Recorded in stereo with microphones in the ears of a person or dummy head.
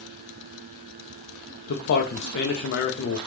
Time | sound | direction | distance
1.7 | a man speaking | 65° left (ahead or behind) | 0.5 m